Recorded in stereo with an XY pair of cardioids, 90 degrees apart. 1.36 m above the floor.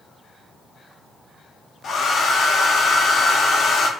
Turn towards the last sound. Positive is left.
turn(degrees=65)